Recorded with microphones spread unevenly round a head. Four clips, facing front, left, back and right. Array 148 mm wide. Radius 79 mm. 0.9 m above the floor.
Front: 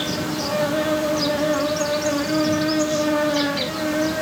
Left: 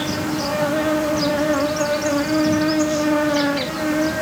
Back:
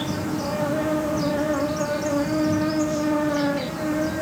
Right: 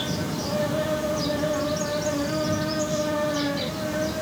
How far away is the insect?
About 2.5 m.